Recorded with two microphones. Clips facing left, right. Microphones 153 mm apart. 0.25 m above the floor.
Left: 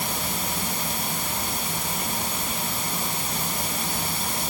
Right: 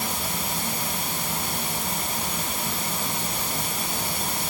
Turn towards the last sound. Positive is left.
No sound to turn to.